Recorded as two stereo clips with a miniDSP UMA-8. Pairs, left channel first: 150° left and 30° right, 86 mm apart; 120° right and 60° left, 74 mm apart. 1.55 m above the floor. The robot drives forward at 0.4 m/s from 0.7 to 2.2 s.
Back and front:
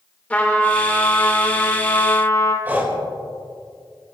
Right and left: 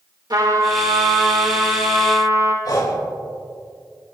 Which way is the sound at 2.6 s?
95° right.